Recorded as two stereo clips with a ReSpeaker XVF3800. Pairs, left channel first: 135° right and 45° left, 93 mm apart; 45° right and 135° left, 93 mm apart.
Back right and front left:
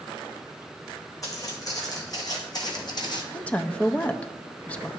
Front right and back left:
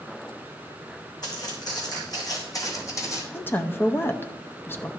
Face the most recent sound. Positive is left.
turn(degrees=-80)